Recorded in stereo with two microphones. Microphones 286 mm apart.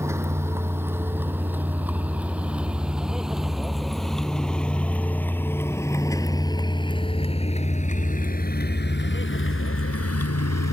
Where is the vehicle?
10° right (ahead or behind); by 10.7 s 65° left (ahead or behind).